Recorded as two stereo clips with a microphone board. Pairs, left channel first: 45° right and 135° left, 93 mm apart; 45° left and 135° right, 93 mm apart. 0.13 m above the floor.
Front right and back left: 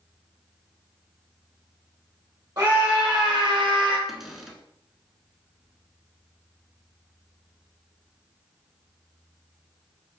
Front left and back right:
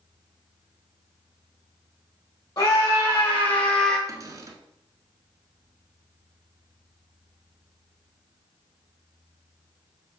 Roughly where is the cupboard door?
Behind right.